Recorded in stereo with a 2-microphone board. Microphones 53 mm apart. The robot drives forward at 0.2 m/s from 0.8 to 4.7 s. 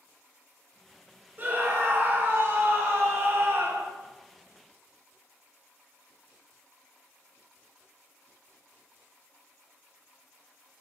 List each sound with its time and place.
1.4 s a scream: 40° right (ahead or behind), 1.0 m; by 3.9 s 45° right (ahead or behind), 0.8 m